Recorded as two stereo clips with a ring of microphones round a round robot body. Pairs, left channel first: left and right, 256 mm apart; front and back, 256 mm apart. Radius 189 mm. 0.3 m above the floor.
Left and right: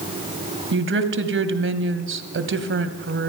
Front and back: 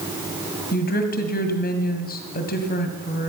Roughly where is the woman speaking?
Ahead right.